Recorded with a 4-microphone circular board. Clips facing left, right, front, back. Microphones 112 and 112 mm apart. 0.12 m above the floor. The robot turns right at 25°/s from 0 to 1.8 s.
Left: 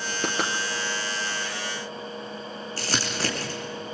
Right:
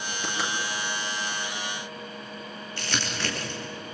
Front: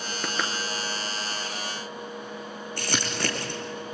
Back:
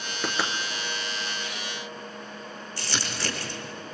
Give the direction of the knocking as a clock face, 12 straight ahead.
9 o'clock.